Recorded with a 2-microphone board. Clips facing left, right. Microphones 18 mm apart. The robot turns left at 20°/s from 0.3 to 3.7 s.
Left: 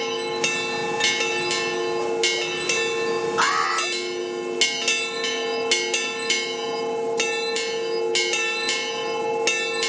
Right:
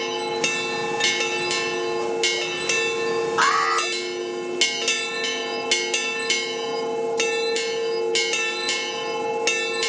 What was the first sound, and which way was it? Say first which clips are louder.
An alarm: right 2 dB; 35° right (ahead or behind).